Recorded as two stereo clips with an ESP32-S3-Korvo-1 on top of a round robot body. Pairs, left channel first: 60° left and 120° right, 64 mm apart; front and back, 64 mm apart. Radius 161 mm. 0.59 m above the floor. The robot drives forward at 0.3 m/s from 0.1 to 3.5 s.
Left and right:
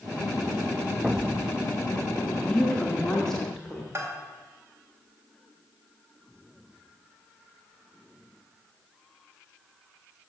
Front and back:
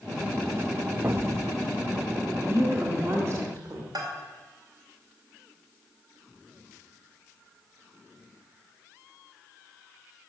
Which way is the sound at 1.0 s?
170° left.